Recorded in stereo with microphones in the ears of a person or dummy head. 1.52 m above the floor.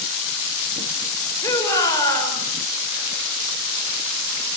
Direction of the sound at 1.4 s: 20° left (ahead or behind).